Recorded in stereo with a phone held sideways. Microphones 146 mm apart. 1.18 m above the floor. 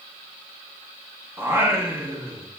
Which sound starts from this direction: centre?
Singing, at 1.4 s.